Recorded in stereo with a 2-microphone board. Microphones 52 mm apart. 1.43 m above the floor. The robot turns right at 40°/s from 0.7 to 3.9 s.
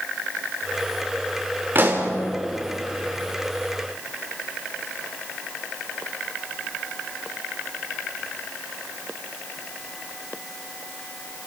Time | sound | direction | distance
1.8 | a pop | 40° right (ahead or behind) | 3 m